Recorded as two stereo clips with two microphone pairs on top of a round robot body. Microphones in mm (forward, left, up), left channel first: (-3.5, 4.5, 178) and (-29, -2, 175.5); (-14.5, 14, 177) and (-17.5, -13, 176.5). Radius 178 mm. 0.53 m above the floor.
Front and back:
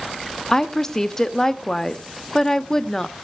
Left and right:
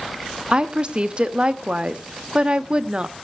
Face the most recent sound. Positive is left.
turn(degrees=-55)